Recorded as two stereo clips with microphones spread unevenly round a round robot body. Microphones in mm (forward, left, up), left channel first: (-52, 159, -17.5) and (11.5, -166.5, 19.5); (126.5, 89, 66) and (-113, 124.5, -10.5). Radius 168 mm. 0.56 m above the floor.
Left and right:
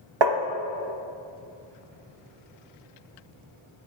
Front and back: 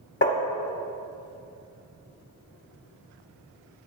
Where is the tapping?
70° right, 0.9 m.